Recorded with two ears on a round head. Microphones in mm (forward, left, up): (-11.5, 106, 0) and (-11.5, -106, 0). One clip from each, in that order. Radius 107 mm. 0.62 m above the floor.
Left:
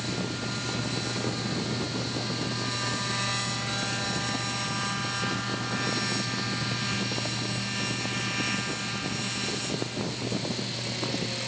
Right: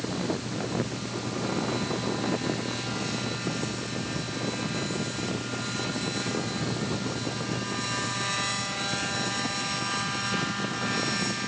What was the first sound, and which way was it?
Only background noise.